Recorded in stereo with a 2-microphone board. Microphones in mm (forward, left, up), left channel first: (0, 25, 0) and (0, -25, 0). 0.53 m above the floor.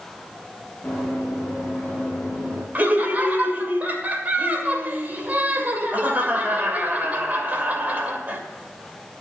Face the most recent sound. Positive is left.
turn(degrees=-35)  # may be behind; listen again after turning